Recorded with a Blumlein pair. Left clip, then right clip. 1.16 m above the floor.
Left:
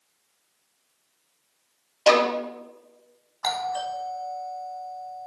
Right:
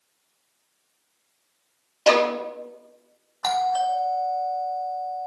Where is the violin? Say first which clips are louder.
Even; 5° right, 1.5 m.